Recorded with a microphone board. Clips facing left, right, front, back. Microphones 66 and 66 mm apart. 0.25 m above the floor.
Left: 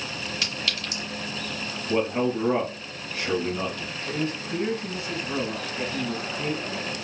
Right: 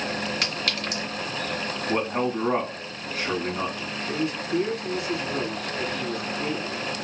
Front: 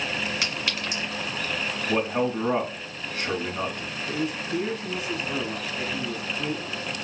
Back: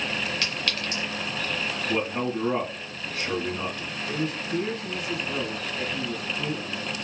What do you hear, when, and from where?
0.4 s a clink: 70° right, 1.8 m
1.9 s a man speaking: 55° right, 1.4 m
4.1 s a man speaking: 65° left, 1.4 m